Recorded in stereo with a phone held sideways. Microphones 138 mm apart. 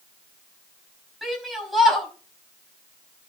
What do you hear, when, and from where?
1.2 s a shout: centre (ahead or behind), 5 m